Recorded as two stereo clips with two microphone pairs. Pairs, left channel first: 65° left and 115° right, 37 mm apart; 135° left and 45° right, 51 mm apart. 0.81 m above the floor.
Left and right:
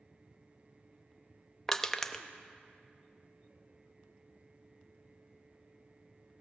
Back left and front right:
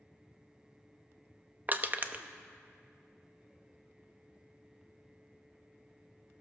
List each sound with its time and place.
1.7 s crushing: straight ahead, 0.7 m